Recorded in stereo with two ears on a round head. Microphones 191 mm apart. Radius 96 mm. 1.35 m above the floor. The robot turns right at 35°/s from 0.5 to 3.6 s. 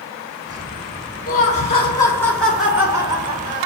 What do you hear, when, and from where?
1.3 s laughter: 135° left, 1.7 m; by 3.7 s 140° right, 1.7 m